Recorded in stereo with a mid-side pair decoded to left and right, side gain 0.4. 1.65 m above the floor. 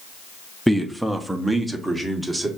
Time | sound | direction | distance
0.7 | a man speaking | 10° right | 0.7 m